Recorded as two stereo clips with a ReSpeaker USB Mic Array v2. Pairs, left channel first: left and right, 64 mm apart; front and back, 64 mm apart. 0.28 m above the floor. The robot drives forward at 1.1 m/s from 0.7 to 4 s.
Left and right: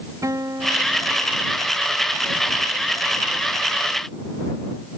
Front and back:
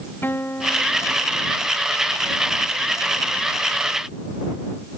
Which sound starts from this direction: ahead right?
A guitar, at 0.2 s.